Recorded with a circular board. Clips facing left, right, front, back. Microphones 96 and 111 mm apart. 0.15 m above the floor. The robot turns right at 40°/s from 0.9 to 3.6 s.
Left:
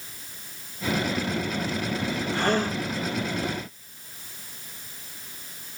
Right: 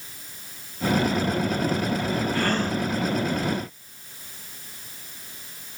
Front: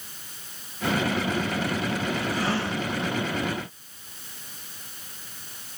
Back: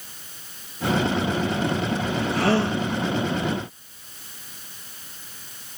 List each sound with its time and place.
2.3 s a gasp: 155° left, 6.5 m; by 2.8 s 175° left, 6.5 m